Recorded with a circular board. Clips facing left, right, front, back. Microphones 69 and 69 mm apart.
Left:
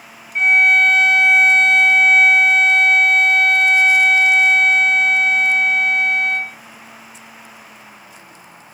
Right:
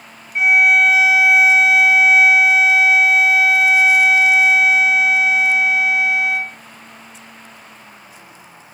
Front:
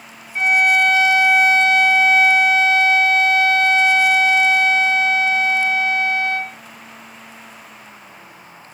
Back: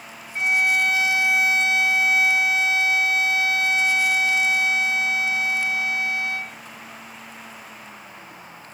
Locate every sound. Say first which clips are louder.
0.3 s a violin: even, front 6 dB; 5° right